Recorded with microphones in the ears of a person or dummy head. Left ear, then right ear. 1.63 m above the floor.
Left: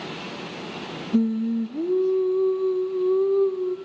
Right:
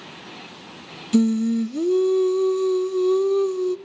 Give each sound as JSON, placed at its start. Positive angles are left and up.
{"t": 1.1, "sound": "singing", "side_deg": -75, "distance_m": 0.5}